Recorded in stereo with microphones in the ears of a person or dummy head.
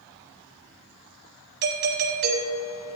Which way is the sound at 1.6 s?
60° right (ahead or behind).